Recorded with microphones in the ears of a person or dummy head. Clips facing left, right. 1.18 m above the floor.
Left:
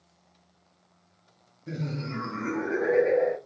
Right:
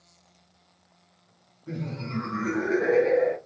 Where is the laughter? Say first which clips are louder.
Even; 25° left (ahead or behind), 1.0 m; by 3.4 s 40° right (ahead or behind), 0.9 m.